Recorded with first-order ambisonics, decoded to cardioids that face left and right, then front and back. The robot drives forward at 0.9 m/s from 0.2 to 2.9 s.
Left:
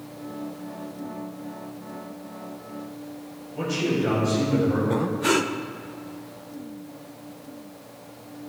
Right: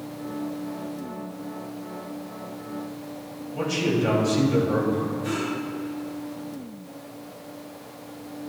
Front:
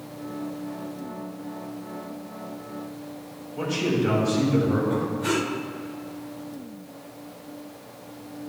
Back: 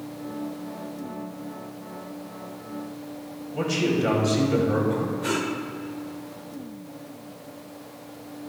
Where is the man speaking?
165° right, 3.5 m.